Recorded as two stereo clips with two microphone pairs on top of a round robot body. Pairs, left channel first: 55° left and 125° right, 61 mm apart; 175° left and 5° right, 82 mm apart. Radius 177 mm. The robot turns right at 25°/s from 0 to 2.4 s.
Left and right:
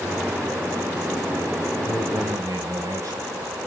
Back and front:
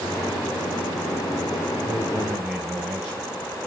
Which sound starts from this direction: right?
A man speaking, at 1.8 s.